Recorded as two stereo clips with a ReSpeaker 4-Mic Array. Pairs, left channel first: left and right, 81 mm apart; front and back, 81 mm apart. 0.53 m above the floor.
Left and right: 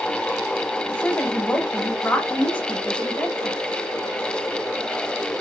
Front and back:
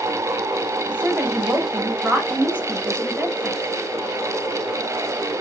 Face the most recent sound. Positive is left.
turn(degrees=135)